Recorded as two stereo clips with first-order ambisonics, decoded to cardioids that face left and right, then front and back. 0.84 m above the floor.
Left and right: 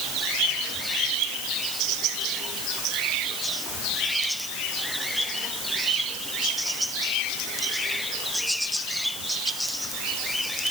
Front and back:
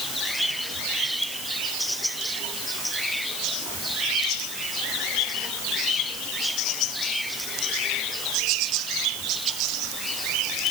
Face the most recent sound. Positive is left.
No sound to turn to.